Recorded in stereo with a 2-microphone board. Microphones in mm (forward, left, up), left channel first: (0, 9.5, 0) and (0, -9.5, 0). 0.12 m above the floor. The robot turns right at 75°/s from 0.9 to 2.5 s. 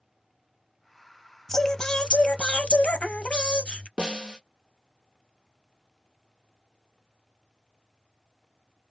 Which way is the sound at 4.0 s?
60° right (ahead or behind).